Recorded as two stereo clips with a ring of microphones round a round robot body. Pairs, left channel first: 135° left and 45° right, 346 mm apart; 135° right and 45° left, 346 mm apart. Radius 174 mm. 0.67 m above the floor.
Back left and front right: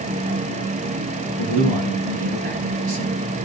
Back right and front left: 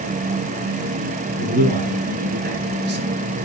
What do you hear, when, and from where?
1.4 s a man speaking: 25° right, 8 m; by 3.1 s 15° right, 7 m